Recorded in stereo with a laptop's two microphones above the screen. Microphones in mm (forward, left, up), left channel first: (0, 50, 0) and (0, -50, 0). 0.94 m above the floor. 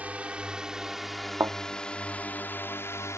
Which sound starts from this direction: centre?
A drone, at 0.0 s.